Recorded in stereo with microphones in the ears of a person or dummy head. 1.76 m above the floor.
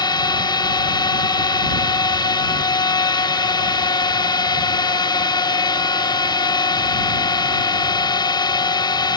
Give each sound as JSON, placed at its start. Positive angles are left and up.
{"t": 0.0, "sound": "a drone", "side_deg": 20}